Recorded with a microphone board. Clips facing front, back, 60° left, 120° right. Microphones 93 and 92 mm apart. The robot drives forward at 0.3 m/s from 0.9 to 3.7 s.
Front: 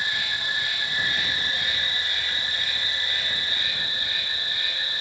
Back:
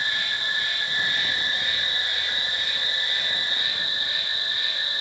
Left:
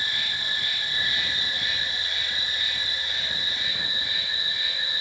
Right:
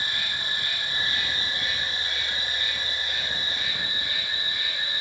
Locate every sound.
0.0 s an insect: 80° right, 1.6 m; by 5.0 s 120° right, 1.7 m